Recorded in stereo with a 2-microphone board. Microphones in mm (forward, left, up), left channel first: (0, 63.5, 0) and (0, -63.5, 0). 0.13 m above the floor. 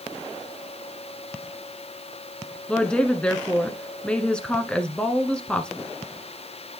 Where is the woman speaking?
10° left (ahead or behind), 1.1 m.